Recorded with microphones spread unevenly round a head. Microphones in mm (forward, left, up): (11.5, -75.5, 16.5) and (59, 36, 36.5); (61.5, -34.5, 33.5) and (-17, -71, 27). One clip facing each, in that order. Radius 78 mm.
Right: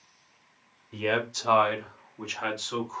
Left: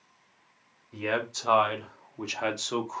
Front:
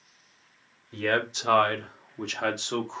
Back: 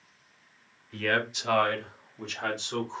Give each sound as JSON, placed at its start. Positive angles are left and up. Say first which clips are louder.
{"t": 0.9, "sound": "a man speaking", "louder": "right 2 dB, front 2 dB", "azimuth_deg": -40, "distance_m": 0.8}